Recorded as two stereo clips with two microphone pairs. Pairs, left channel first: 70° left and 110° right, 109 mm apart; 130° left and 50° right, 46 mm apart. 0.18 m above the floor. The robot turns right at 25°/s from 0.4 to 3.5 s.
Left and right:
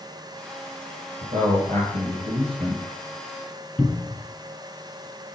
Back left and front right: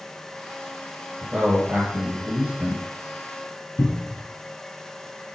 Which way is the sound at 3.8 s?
160° left.